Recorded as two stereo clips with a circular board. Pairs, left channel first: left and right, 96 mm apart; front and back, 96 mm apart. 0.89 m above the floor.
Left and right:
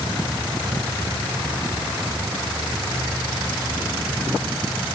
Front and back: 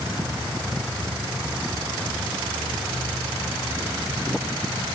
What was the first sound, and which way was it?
Only background noise.